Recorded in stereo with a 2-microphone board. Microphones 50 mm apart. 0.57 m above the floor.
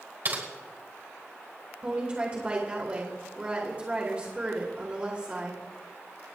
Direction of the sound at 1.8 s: 25° right (ahead or behind).